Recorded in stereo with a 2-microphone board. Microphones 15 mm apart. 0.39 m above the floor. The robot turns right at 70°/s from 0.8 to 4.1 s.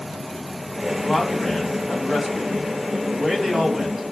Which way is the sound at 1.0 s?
135° left.